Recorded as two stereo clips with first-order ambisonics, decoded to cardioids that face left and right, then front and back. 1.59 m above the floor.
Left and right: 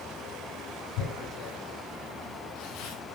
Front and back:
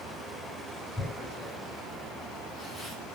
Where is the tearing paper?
85° left, 5.5 m.